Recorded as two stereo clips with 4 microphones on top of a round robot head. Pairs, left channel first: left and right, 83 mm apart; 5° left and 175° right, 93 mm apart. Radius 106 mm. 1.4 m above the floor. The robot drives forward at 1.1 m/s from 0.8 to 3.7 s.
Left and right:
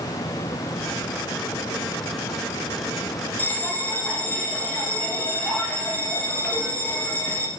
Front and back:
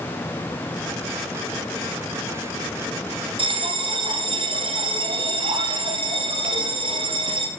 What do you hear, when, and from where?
3.4 s a bell: 160° left, 2.5 m